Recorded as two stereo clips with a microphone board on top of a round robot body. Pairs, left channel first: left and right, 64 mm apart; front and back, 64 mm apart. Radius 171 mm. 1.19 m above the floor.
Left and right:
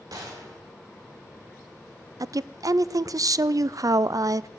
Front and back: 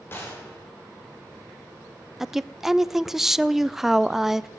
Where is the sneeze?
I don't hear a sneeze.